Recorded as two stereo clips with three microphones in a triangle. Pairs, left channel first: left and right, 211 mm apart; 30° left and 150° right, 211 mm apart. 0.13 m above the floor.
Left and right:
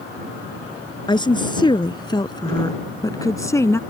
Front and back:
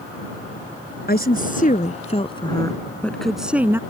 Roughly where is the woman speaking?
Ahead left.